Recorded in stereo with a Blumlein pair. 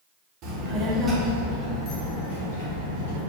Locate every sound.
0.4 s a child speaking: 35° right, 1.3 m; by 3.2 s 50° left, 2.5 m